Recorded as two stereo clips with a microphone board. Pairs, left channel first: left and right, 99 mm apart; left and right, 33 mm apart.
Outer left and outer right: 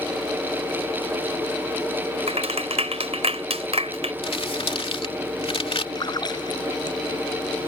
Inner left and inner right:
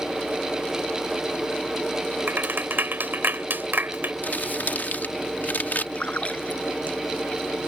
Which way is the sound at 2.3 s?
85° right.